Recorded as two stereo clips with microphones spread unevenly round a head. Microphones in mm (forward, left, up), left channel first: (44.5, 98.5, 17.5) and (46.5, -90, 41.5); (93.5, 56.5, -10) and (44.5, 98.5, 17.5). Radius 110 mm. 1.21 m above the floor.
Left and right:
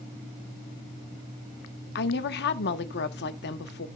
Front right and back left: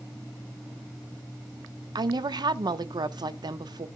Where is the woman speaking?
120° left, 1.1 m.